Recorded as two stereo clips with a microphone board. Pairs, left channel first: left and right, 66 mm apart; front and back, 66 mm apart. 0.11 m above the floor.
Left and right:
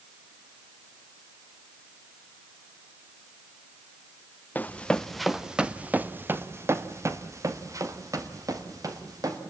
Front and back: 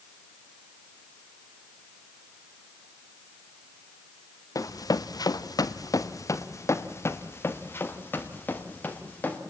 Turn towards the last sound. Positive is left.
turn(degrees=-65)